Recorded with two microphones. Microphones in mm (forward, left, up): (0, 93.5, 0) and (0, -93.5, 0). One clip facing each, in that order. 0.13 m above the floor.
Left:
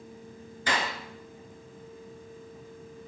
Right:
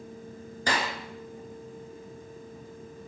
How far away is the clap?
About 1.3 m.